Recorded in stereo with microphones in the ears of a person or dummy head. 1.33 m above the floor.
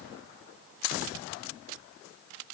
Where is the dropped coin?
I don't hear a dropped coin.